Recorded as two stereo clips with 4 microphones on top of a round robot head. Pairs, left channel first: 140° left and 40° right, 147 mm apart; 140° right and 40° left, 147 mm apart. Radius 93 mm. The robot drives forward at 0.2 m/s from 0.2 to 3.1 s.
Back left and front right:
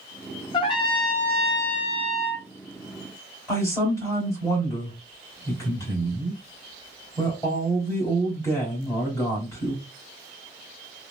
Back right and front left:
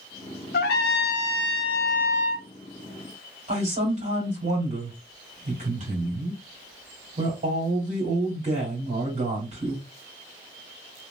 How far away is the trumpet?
About 0.5 m.